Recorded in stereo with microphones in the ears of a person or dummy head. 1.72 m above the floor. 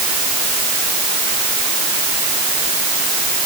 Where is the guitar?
I don't hear a guitar.